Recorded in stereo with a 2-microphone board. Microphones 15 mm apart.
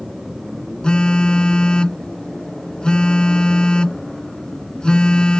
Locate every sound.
0.8 s a phone buzzing: 80° left